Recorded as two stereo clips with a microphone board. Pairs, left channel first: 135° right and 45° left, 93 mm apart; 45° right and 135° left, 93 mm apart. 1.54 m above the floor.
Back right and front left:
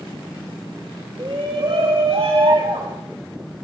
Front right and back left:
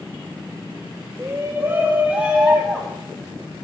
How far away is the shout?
About 3 m.